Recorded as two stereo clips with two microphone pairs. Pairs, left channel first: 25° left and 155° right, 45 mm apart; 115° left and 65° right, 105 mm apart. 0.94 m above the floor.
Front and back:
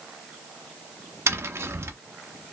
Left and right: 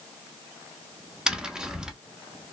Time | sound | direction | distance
1.3 | tapping | 145° right | 0.7 m